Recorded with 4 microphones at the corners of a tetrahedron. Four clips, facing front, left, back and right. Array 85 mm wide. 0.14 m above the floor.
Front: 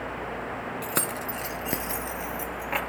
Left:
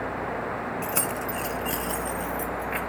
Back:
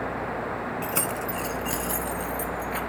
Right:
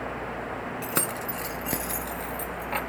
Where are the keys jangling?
55° right, 0.8 m; by 2.8 s 30° right, 1.7 m.